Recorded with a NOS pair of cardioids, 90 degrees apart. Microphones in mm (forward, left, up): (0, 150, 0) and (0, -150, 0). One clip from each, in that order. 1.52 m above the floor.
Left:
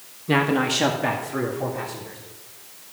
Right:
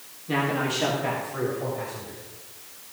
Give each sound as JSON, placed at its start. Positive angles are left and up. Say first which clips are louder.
{"t": 0.3, "sound": "a man speaking", "louder": "left 5 dB", "azimuth_deg": 50, "distance_m": 1.7}